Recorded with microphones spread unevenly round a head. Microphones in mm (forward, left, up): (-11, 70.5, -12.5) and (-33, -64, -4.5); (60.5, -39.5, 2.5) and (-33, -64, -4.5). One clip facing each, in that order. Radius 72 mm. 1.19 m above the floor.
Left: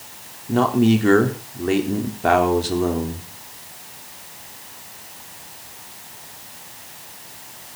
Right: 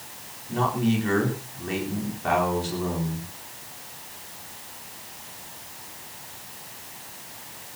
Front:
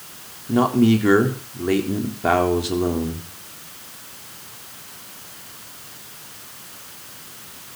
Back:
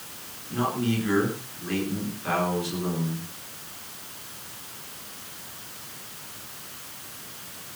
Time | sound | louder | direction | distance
0.5 | a man speaking | left 8 dB, front 10 dB | 40° left | 4 m